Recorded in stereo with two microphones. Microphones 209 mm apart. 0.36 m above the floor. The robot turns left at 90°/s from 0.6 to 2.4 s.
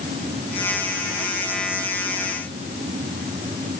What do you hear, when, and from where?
Only background noise.